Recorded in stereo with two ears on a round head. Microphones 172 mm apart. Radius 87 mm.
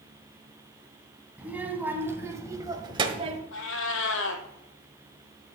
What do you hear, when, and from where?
1.4 s a child speaking: 10° right (ahead or behind), 2.5 m; by 3.4 s 35° right (ahead or behind), 1.2 m
3.5 s a cat meowing: 80° left, 1.5 m